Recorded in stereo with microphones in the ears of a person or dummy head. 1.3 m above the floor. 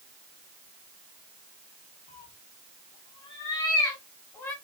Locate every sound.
2.1 s a cat meowing: 55° left (ahead or behind), 1.0 m; by 4.5 s 10° left (ahead or behind), 1.7 m